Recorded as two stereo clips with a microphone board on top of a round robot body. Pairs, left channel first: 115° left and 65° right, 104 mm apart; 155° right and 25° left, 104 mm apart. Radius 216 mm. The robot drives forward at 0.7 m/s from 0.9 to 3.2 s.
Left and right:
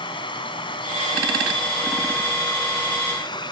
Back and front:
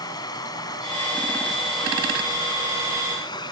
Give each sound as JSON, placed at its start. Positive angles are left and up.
{"t": 0.0, "sound": "running water", "azimuth_deg": 150}